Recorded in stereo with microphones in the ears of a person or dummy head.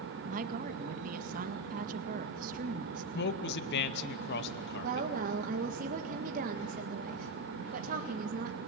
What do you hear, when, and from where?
0.3 s a woman speaking: 45° right (ahead or behind), 1.7 m
3.1 s a man speaking: 65° left (ahead or behind), 2 m
4.8 s a woman speaking: 45° right (ahead or behind), 1.8 m